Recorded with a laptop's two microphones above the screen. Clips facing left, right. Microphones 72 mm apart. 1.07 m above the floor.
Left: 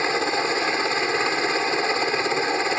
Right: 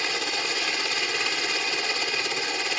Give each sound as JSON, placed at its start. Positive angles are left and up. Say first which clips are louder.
{"t": 0.0, "sound": "a helicopter", "louder": "left 7 dB", "side_deg": 30}